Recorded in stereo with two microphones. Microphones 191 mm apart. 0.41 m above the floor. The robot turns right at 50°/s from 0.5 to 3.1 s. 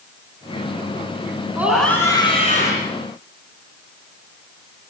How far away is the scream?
About 5.5 m.